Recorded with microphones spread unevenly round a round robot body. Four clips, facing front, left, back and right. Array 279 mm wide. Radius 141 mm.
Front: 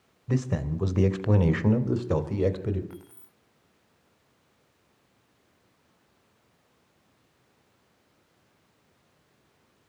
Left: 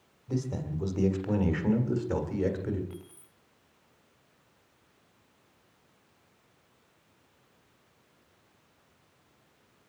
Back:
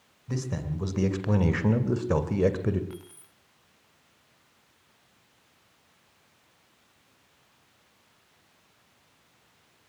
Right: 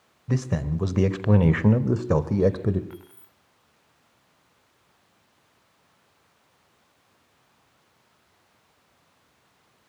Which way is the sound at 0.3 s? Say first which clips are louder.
Right 6 dB, front 5 dB; 65° right.